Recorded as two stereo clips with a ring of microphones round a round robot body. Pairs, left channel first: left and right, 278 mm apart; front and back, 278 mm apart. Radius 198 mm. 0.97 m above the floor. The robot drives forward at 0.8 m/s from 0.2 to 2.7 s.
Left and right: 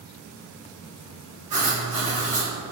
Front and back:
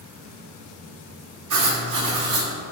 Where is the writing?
165° right, 1.7 m; by 2.5 s 170° right, 2.5 m.